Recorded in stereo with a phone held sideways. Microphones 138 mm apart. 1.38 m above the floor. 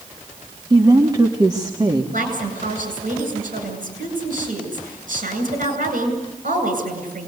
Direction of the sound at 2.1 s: 70° right (ahead or behind).